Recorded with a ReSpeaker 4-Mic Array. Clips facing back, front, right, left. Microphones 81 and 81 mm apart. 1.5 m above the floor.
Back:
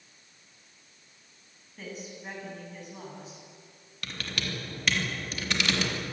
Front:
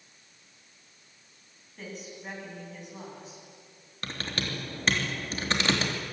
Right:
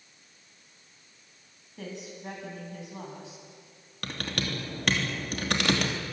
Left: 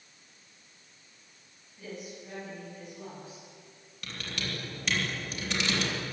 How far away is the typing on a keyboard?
About 3.5 m.